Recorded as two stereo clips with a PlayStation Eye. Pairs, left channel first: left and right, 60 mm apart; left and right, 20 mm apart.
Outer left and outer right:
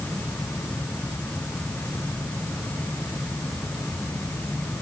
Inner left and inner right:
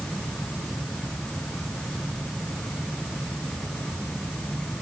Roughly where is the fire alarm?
I don't hear a fire alarm.